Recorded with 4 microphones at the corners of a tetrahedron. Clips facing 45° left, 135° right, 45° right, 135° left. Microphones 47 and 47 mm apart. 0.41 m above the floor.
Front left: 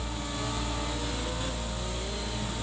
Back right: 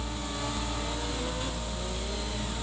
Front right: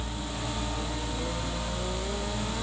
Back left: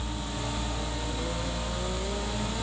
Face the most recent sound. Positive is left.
No sound to turn to.